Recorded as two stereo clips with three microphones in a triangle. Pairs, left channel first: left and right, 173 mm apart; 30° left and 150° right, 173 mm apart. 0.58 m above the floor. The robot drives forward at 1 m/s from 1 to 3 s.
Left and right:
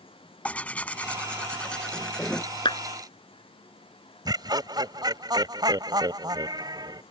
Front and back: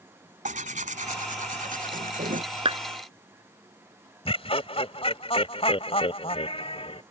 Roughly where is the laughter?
Ahead right.